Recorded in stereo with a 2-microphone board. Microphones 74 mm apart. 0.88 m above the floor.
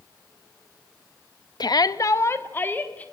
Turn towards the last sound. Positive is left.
turn(degrees=20)  # may be behind; listen again after turning